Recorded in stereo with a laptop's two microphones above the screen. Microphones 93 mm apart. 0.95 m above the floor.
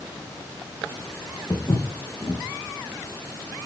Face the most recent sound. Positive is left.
turn(degrees=45)  # may be behind; listen again after turning